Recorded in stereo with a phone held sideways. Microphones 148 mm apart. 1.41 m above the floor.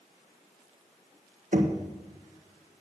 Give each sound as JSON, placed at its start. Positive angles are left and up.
{"t": 1.5, "sound": "knocking", "side_deg": -60, "distance_m": 1.3}